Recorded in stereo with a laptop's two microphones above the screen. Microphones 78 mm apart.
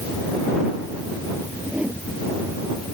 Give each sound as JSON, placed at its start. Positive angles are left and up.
{"t": 1.6, "sound": "a whoosh", "side_deg": -20}